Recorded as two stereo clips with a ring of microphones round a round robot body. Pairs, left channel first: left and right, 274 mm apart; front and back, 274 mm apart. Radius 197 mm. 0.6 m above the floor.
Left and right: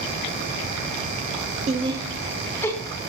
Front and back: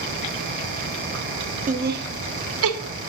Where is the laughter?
140° right, 0.7 m; by 2.8 s 170° left, 1.0 m.